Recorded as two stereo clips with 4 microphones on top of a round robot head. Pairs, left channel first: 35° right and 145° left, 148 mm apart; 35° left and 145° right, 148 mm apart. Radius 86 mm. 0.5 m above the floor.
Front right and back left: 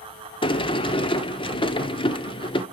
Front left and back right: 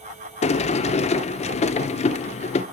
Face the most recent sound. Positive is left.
turn(degrees=10)